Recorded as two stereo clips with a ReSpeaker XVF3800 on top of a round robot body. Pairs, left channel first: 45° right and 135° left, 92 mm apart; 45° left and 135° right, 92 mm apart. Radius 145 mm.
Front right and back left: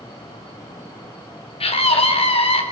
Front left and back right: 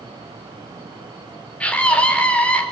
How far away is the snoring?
I don't hear snoring.